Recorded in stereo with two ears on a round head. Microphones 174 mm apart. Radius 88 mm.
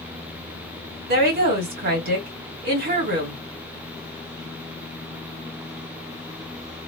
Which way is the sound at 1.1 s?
50° right (ahead or behind).